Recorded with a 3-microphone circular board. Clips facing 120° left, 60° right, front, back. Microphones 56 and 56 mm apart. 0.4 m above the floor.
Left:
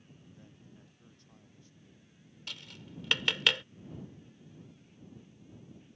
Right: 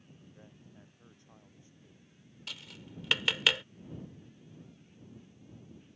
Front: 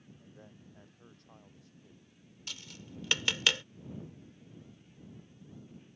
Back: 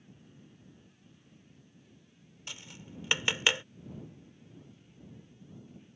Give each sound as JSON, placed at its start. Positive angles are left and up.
{"t": 0.2, "sound": "a man speaking", "azimuth_deg": 10}
{"t": 2.5, "sound": "tapping", "azimuth_deg": -145}